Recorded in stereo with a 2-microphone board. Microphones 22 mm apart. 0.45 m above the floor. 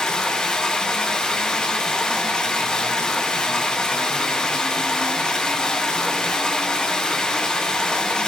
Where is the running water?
45° left (ahead or behind), 8 m.